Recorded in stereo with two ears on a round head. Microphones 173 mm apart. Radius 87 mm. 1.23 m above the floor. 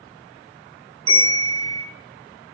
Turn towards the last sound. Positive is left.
turn(degrees=-30)  # may be behind; listen again after turning